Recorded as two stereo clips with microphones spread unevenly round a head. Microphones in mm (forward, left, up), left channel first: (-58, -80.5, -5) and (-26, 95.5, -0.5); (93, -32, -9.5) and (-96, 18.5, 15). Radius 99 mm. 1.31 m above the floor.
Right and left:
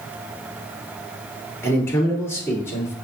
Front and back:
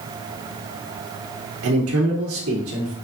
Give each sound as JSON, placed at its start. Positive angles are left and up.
{"t": 1.6, "sound": "a man speaking", "azimuth_deg": -175, "distance_m": 2.0}